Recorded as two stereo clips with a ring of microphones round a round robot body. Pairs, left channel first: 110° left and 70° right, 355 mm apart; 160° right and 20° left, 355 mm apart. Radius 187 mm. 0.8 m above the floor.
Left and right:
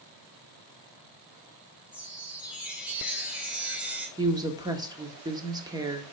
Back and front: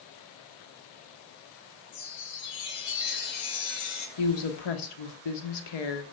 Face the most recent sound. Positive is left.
turn(degrees=-145)